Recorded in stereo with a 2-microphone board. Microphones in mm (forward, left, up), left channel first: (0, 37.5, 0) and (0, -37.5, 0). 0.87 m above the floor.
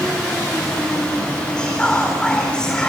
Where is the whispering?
10° left (ahead or behind), 3.5 m.